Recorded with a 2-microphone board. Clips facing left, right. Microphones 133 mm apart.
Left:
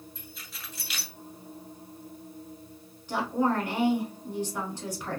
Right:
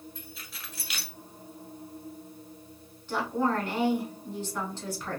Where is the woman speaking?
15° left (ahead or behind), 1.1 m.